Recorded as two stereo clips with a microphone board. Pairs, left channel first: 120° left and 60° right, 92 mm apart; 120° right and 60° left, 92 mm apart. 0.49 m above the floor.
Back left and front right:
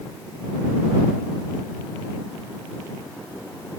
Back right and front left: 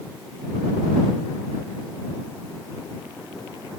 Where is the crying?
I don't hear crying.